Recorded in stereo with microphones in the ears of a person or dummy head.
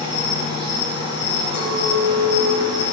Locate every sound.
0.0 s an insect: 60° left (ahead or behind), 4.5 m
1.5 s a clink: 85° left, 5.5 m